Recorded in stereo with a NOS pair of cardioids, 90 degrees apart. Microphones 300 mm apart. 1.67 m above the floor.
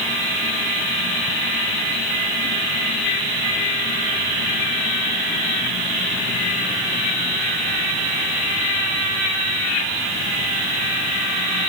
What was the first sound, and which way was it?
Only background noise.